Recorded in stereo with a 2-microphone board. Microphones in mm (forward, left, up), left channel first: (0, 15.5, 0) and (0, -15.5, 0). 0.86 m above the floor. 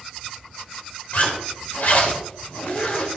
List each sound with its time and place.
1.1 s a zipper: 65° left (ahead or behind), 3.5 m